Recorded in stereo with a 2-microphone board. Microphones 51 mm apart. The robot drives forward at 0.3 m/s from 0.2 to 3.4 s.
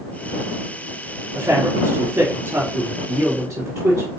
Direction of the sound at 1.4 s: 70° right (ahead or behind).